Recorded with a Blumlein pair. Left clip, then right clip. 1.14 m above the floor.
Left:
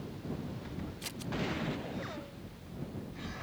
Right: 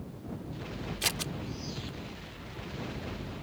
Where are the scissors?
60° right.